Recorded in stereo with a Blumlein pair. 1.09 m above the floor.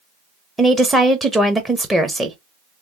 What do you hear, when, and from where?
0.6 s a woman speaking: 5° right, 0.6 m